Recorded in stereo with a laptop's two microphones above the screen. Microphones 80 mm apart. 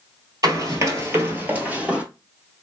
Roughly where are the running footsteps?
Right.